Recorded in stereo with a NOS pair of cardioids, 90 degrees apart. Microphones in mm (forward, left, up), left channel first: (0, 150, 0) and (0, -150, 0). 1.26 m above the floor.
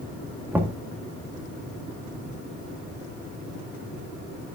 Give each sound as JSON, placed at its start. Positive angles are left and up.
{"t": 0.5, "sound": "knocking", "azimuth_deg": -5, "distance_m": 1.6}